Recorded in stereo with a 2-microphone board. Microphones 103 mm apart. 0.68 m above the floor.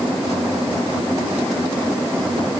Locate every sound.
Only background noise.